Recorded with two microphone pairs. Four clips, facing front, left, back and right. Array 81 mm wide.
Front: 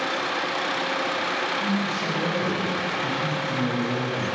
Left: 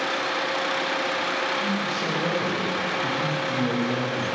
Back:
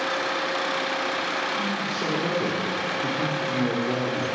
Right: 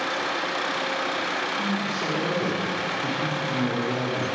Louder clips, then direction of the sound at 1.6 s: Left 1 dB, front 2 dB; 170° right.